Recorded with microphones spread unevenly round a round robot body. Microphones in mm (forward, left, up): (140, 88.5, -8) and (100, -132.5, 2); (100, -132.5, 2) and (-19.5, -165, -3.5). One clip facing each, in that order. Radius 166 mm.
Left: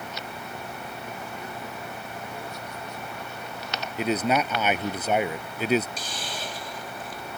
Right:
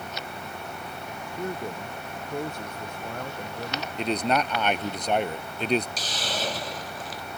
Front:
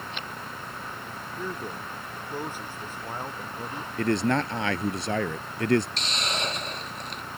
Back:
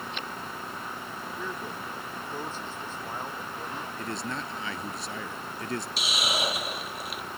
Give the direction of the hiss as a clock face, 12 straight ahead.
3 o'clock.